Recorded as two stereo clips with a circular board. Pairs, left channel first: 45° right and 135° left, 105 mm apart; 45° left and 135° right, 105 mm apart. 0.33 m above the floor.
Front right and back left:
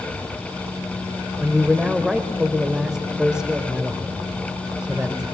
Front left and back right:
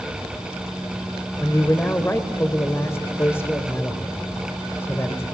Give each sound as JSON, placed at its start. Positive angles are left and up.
{"t": 1.4, "sound": "a man speaking", "azimuth_deg": 65, "distance_m": 1.0}